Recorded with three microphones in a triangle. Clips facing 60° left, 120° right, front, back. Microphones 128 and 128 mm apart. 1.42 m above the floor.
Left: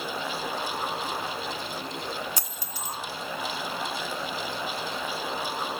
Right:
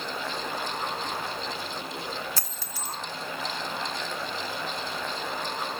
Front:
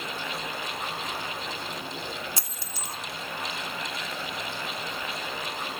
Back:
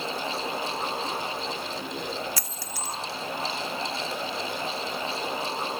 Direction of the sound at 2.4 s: 10° left.